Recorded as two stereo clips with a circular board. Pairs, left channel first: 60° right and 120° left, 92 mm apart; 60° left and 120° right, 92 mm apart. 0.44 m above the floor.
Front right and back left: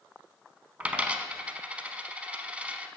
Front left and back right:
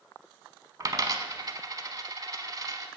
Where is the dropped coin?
165° right, 0.7 m.